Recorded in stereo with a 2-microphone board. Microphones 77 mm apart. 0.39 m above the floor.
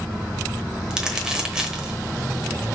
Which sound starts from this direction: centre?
Crumpling, at 0.9 s.